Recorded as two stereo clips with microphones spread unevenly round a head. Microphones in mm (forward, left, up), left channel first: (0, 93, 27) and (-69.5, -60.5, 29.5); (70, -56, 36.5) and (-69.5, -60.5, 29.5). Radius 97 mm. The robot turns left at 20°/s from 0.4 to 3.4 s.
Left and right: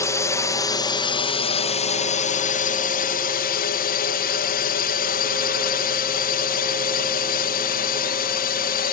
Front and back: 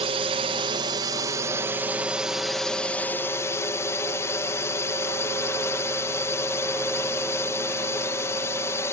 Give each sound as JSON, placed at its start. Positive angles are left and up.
{"t": 0.0, "sound": "a drone", "azimuth_deg": 135}